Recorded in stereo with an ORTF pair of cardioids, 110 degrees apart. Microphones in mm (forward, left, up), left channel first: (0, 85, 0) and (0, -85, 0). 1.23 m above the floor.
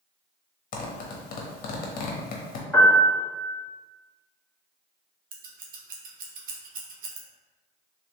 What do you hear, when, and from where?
0.7 s a zipper: 55° left, 1.0 m
2.7 s a piano: 5° left, 1.7 m
5.3 s scissors: 55° right, 1.0 m